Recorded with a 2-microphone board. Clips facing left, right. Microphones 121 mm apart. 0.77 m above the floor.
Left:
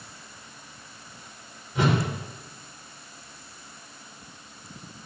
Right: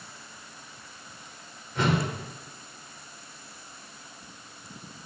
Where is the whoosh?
15° left (ahead or behind), 1.8 m.